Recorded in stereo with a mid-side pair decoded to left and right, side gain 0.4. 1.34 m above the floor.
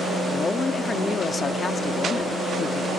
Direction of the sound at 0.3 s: 40° left.